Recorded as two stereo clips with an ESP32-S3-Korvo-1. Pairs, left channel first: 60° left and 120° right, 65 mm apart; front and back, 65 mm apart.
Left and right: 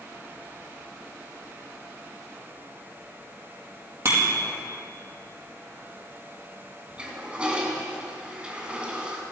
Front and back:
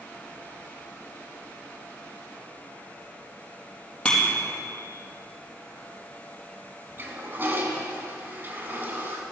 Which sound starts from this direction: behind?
A toilet flushing, at 7.0 s.